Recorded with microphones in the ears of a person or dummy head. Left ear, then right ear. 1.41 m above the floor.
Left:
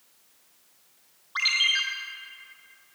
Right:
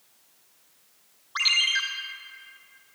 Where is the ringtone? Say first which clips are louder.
Right 1 dB; centre (ahead or behind), 0.7 m.